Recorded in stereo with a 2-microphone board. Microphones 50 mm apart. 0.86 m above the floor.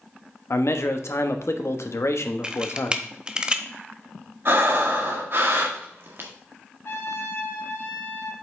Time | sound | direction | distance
0.5 | a man speaking | 65° left (ahead or behind) | 1.0 m
2.4 | a camera shutter | 20° right (ahead or behind) | 0.8 m
4.5 | breathing | 50° right (ahead or behind) | 1.4 m
6.8 | a trumpet | 55° left (ahead or behind) | 1.6 m